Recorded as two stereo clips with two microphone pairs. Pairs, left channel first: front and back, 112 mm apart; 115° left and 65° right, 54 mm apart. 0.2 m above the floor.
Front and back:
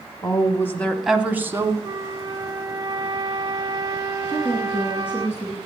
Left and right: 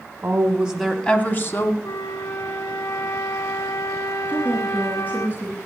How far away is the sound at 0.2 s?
About 1.3 m.